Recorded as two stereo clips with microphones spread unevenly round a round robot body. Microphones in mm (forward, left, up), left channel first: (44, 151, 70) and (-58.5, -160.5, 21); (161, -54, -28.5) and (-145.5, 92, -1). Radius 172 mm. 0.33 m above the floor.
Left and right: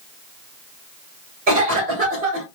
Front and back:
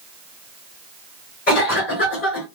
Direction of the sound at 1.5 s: 70° right.